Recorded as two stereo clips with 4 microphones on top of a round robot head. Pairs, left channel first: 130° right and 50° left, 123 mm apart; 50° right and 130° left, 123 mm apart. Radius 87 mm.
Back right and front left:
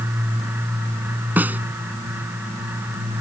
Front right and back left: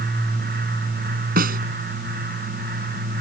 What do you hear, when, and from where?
1.4 s a snare drum: 130° left